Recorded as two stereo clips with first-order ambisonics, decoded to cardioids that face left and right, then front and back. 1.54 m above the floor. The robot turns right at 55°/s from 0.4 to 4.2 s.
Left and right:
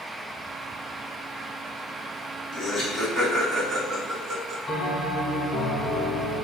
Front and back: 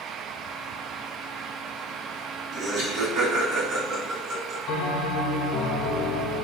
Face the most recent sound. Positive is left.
turn(degrees=25)